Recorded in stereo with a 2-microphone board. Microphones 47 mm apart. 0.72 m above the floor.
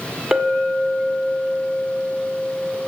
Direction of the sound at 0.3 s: 15° right (ahead or behind).